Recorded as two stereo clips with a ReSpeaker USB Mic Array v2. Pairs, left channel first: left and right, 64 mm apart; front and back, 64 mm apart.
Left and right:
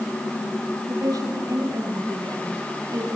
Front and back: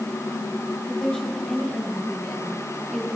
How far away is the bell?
No bell in this recording.